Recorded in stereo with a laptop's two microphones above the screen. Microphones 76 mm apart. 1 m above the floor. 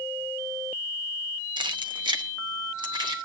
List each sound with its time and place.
1.6 s keys jangling: 90° right, 0.7 m; by 3.2 s 85° right, 1.7 m